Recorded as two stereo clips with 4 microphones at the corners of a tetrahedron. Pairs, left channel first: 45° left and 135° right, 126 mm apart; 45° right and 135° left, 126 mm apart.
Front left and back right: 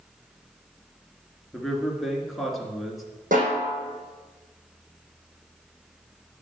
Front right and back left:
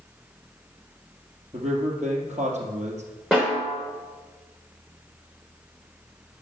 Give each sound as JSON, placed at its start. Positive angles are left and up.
{"t": 1.5, "sound": "a man speaking", "azimuth_deg": 135, "distance_m": 2.5}
{"t": 3.3, "sound": "a snare drum", "azimuth_deg": -140, "distance_m": 5.0}